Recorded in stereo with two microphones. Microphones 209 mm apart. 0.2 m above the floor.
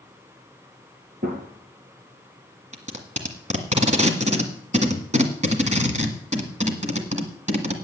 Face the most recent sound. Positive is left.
turn(degrees=-35)  # may be behind; listen again after turning